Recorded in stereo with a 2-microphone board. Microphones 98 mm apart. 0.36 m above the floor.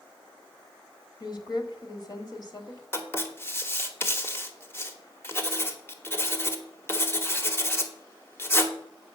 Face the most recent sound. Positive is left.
turn(degrees=25)  # may be behind; listen again after turning